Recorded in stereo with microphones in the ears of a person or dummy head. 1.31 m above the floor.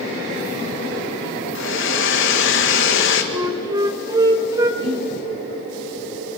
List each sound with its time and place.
1.6 s a hair dryer: 60° left (ahead or behind), 1.7 m
3.3 s a flute: 20° right (ahead or behind), 1.8 m
4.8 s breathing: 35° right (ahead or behind), 4 m